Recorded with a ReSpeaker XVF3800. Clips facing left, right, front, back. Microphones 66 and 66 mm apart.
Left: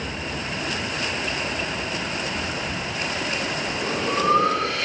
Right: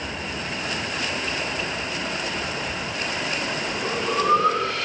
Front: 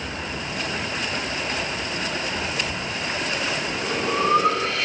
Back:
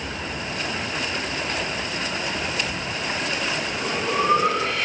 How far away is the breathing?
About 4 m.